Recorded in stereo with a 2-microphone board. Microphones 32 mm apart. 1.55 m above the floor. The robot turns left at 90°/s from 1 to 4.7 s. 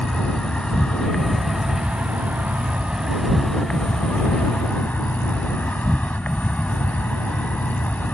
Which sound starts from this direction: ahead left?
An insect, at 0.0 s.